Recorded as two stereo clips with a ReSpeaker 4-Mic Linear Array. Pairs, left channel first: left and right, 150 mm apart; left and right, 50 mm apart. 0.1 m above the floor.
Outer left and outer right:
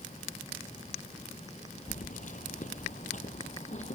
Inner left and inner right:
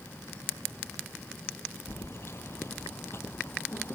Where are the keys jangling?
60° left (ahead or behind); by 4.0 s 55° left (ahead or behind).